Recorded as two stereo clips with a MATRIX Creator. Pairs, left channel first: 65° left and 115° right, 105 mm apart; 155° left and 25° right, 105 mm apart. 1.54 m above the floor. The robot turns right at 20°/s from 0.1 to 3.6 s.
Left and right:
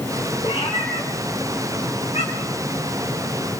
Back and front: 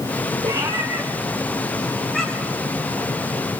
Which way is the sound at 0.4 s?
30° left.